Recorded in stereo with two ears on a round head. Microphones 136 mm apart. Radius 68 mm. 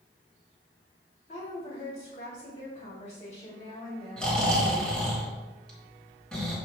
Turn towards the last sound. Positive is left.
turn(degrees=5)  # may be behind; listen again after turning